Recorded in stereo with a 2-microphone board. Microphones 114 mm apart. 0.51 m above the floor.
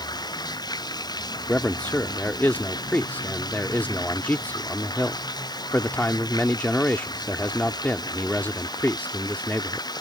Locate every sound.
0.0 s running water: 35° left (ahead or behind)
1.5 s a man speaking: 15° left (ahead or behind)